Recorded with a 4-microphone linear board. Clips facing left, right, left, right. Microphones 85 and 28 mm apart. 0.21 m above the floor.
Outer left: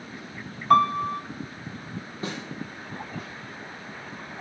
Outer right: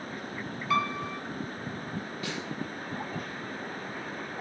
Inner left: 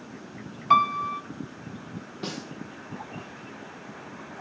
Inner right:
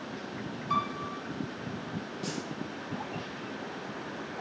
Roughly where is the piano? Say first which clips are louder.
Outer left 10 dB, inner left 11 dB; left.